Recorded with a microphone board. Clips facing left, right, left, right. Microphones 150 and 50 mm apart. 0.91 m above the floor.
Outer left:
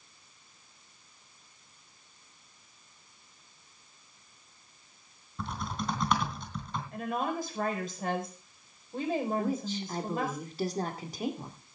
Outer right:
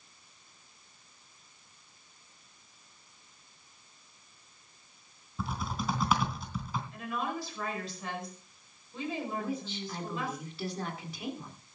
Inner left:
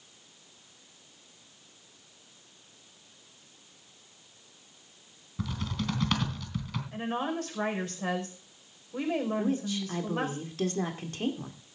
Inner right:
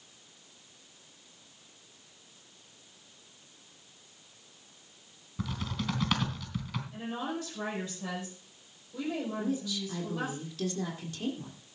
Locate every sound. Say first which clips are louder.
5.4 s typing on a keyboard: even, inner left 1 dB; 5° right (ahead or behind), 3 m
6.9 s a woman speaking: outer left 5 dB, inner left 5 dB; 50° left (ahead or behind), 4.5 m
9.4 s a woman speaking: outer left 4 dB, inner left 3 dB; 40° left (ahead or behind), 2 m